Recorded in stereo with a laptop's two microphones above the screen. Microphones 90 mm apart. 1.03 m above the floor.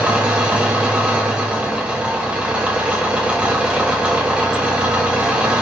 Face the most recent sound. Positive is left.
turn(degrees=-10)  # may be behind; listen again after turning